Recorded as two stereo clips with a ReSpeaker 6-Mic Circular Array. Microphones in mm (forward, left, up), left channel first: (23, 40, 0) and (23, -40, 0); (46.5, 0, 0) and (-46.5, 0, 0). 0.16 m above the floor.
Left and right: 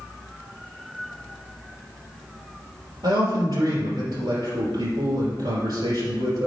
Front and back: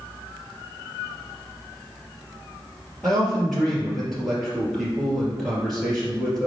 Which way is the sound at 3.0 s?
85° right.